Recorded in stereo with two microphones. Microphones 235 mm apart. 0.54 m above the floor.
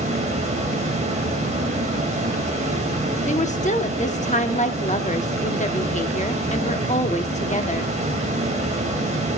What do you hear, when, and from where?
0.0 s running water: 30° right (ahead or behind), 2.5 m
3.3 s a woman speaking: 30° left (ahead or behind), 0.9 m